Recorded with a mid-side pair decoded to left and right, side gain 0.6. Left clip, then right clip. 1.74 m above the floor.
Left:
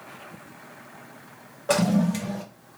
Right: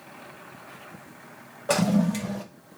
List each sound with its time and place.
1.7 s a toilet flushing: 5° right, 0.6 m